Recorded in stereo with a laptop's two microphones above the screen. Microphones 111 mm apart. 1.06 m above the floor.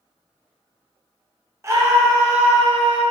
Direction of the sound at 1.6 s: 25° right (ahead or behind).